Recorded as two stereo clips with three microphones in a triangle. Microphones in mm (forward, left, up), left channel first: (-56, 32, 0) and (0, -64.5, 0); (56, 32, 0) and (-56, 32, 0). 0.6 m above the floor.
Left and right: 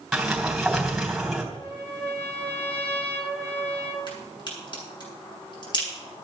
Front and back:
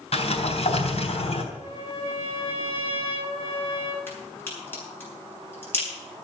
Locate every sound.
0.1 s a sliding door: 30° left, 3 m
1.5 s a trumpet: 40° left, 3 m
4.1 s a crack: 70° left, 7.5 m